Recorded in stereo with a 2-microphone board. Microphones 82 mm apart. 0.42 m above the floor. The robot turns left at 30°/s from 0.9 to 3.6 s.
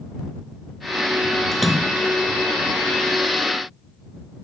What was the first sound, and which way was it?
A splash, 5° left (ahead or behind).